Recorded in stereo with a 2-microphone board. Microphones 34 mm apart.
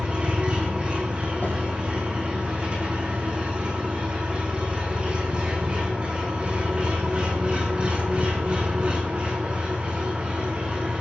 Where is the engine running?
35° right (ahead or behind), 4.5 m.